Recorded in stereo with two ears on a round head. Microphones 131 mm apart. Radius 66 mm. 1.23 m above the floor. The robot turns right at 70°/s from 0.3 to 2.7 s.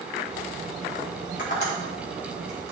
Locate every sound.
1.4 s tapping: 65° left (ahead or behind), 1.9 m; by 2.7 s 20° right (ahead or behind), 1.9 m